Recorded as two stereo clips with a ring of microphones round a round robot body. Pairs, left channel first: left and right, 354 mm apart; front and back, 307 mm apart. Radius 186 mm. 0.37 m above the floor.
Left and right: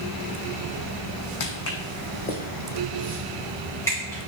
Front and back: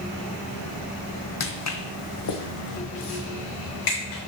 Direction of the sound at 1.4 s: 50° left.